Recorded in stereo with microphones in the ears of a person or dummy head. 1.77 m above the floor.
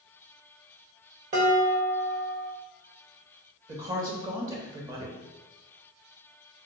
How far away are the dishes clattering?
About 0.9 m.